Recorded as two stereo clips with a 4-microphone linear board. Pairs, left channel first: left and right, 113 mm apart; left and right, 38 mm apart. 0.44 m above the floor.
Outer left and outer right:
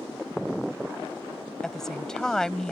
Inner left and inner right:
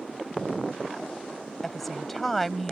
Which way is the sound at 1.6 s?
5° left (ahead or behind).